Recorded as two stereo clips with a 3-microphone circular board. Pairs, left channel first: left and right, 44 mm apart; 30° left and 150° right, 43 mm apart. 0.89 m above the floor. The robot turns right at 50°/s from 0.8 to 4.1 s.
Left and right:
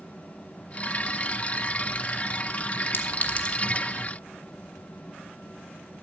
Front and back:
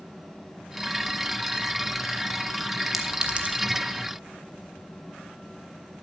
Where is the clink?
125° left, 1.1 m; by 3.5 s 160° left, 1.1 m.